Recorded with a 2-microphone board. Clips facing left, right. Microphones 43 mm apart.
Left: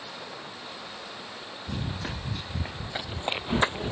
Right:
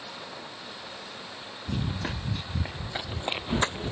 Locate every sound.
1.7 s running footsteps: 15° right (ahead or behind); by 3.9 s 15° left (ahead or behind)